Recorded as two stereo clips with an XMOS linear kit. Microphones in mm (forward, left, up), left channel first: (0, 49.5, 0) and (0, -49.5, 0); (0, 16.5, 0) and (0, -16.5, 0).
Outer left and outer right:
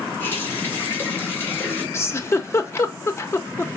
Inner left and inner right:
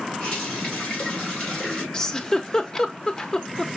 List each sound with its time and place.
0.2 s a running tap: 20° left (ahead or behind), 3 m
1.9 s a giggle: 25° left (ahead or behind), 0.7 m